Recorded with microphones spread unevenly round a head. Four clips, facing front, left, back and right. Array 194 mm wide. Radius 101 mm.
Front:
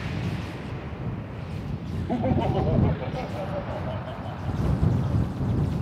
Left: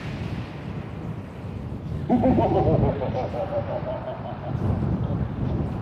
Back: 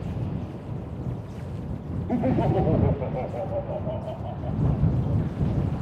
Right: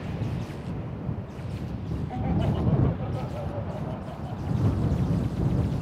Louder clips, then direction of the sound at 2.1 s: Left 11 dB, back 2 dB; 95° left.